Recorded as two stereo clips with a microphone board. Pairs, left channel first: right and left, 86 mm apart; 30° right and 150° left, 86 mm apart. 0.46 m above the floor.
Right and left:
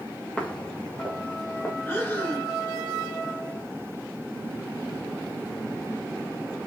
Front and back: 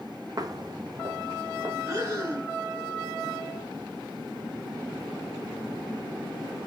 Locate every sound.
0.4 s footsteps: 170° right, 1.1 m; by 1.8 s 160° right, 3 m
1.9 s breathing: 160° right, 3.5 m